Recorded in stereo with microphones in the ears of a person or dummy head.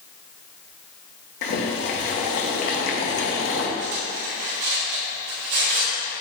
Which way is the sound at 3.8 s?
60° right (ahead or behind).